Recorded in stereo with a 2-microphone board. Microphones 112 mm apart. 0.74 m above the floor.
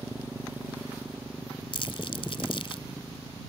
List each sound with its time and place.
0.0 s a motorcycle: 20° right (ahead or behind)
1.7 s crumpling: 55° left (ahead or behind)